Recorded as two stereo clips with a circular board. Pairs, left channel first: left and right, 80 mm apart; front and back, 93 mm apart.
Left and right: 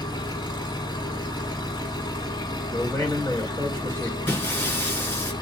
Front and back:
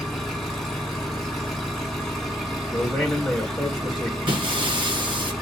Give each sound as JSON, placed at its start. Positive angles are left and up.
{"t": 0.0, "sound": "an engine running", "azimuth_deg": 90, "distance_m": 1.4}
{"t": 2.7, "sound": "a man speaking", "azimuth_deg": 90, "distance_m": 1.1}
{"t": 4.3, "sound": "breaking glass", "azimuth_deg": 155, "distance_m": 2.0}